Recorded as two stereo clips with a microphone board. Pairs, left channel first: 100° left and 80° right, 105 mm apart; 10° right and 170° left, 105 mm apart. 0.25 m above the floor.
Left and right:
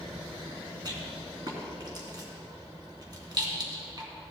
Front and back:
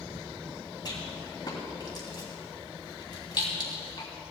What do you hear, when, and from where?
0.8 s a rattle: 45° right, 2.5 m